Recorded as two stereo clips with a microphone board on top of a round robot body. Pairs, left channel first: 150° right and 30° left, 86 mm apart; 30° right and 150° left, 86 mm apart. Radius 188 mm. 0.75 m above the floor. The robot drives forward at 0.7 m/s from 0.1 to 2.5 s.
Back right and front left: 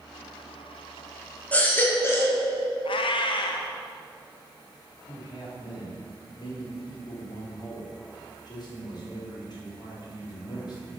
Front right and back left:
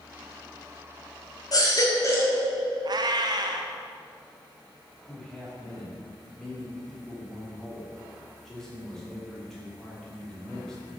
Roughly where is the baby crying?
Right.